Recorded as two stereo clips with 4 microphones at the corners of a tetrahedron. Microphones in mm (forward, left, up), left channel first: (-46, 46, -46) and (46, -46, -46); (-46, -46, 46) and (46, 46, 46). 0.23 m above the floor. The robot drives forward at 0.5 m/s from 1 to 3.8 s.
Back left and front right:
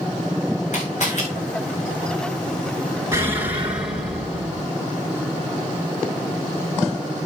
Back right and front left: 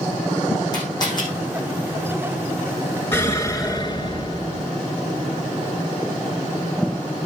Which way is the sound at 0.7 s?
165° left.